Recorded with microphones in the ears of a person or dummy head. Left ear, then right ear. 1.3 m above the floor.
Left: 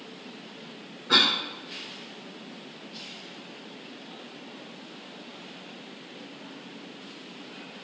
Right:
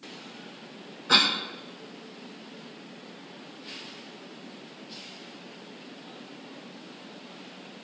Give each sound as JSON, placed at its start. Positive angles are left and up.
{"t": 1.1, "sound": "a cough", "side_deg": -75, "distance_m": 1.2}